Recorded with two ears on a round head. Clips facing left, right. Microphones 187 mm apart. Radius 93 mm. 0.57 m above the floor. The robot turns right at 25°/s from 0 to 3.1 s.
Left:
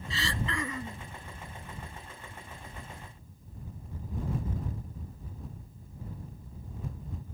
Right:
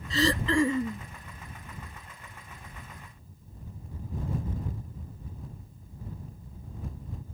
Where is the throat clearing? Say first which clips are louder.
Right 10 dB; 40° right (ahead or behind); by 1.1 s 20° right (ahead or behind).